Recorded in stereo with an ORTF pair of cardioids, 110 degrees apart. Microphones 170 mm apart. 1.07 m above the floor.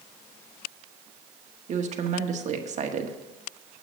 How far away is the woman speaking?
About 1.5 m.